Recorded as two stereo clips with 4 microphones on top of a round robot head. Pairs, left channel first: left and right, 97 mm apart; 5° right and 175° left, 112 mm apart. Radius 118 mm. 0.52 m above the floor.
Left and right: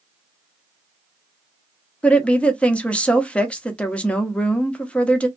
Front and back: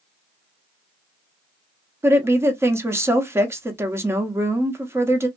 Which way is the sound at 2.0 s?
150° left.